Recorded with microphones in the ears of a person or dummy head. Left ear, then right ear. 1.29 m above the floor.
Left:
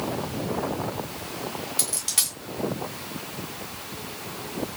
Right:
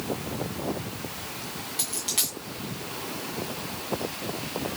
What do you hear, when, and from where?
1.8 s a dropped coin: 5° left (ahead or behind), 1.9 m